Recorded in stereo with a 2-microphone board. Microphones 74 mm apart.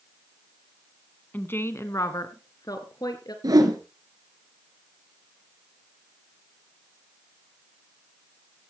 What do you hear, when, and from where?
1.3 s a woman speaking: 25° left (ahead or behind), 1.2 m; by 3.3 s 60° left (ahead or behind), 2.5 m
3.4 s a whoosh: 60° right (ahead or behind), 2.5 m